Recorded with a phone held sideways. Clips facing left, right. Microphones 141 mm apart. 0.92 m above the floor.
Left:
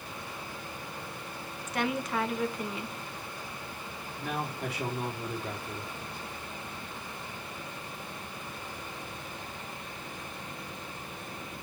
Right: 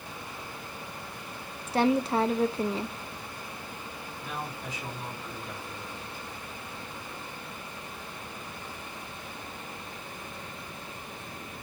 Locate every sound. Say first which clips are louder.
1.7 s a woman speaking: right 7 dB; 30° right (ahead or behind), 0.9 m
4.2 s a man speaking: left 4 dB; 70° left (ahead or behind), 3 m